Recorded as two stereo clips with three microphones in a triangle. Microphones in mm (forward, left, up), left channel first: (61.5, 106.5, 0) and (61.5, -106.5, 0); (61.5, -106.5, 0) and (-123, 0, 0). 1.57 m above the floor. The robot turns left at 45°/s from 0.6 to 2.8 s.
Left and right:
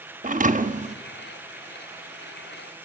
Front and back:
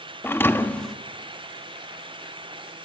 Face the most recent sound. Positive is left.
turn(degrees=155)